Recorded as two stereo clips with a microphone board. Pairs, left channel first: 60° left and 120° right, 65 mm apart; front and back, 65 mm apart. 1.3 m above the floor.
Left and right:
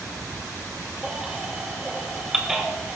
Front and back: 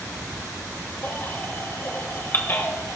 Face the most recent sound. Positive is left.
turn(degrees=-40)